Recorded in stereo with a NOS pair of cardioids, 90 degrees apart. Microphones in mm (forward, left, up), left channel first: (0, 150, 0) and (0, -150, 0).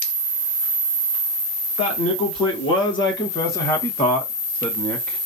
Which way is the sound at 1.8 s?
55° left.